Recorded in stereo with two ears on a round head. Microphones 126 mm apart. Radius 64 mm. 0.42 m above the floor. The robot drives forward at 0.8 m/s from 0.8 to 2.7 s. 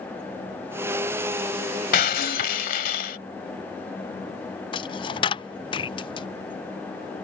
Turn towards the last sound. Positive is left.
turn(degrees=35)  # may be behind; listen again after turning